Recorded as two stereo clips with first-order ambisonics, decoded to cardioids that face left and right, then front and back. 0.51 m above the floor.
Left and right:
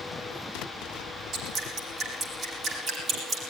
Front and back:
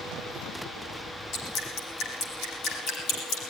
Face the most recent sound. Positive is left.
turn(degrees=-25)